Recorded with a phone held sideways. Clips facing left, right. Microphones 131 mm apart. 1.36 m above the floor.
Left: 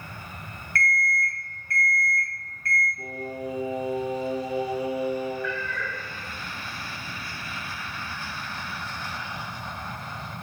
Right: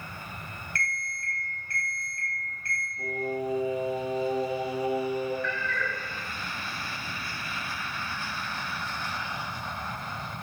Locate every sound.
0.8 s an alarm clock: 25° right (ahead or behind), 1.0 m
3.0 s singing: 30° right (ahead or behind), 1.6 m
5.4 s a cat meowing: 10° left (ahead or behind), 0.5 m